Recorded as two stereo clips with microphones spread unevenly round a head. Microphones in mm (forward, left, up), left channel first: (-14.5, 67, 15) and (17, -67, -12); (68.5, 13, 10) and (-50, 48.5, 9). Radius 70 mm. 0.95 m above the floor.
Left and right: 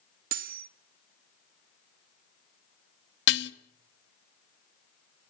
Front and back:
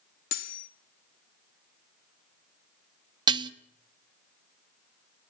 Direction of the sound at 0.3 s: 50° right.